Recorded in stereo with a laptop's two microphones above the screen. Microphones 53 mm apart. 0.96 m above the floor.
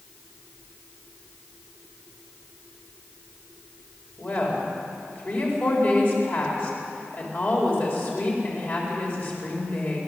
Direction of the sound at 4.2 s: 45° left (ahead or behind).